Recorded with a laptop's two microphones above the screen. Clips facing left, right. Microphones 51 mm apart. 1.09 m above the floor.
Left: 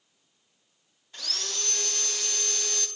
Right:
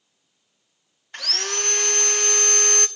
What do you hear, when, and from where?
1.1 s sawing: 60° right (ahead or behind), 0.9 m